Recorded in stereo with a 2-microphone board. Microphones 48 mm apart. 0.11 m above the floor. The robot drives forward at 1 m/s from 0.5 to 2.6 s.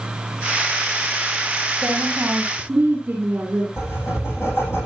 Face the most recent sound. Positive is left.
turn(degrees=60)  # may be behind; listen again after turning